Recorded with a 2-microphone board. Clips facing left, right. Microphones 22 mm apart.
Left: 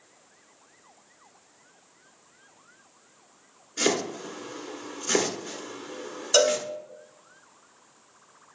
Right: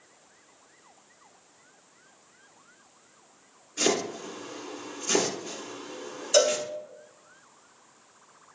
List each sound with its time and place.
3.8 s chopping: 30° left (ahead or behind), 2 m
6.3 s a cowbell: 25° left (ahead or behind), 0.9 m